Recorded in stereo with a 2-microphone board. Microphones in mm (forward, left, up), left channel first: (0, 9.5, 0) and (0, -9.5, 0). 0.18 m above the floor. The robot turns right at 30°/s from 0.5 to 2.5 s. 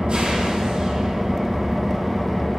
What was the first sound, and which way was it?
An engine running, 45° right.